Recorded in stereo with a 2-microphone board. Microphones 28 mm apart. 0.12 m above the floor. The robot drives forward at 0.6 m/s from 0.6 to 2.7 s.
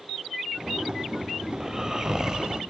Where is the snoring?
25° right (ahead or behind), 2.5 m; by 2.6 s 30° right (ahead or behind), 1.9 m.